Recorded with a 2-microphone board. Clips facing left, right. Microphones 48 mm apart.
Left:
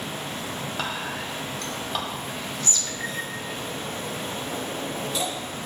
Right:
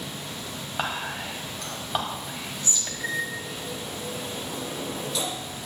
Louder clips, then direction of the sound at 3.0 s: Right 5 dB; 25° left (ahead or behind).